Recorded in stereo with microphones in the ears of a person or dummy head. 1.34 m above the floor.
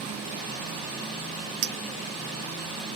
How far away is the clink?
About 0.8 m.